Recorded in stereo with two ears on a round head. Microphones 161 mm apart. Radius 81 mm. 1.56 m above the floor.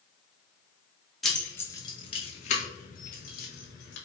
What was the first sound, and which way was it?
Keys jangling, centre (ahead or behind).